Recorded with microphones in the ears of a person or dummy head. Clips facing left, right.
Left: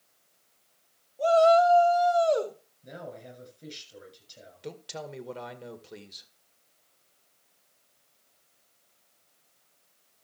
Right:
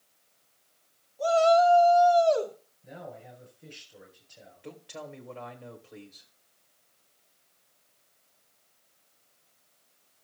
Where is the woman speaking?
55° left (ahead or behind), 2.0 m.